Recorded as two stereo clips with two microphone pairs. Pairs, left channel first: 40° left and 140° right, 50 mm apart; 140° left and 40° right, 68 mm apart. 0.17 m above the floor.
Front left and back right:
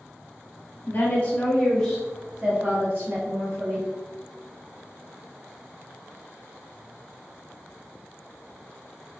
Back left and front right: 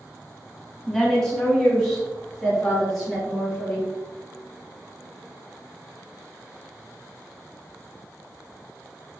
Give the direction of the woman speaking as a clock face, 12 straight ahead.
10 o'clock.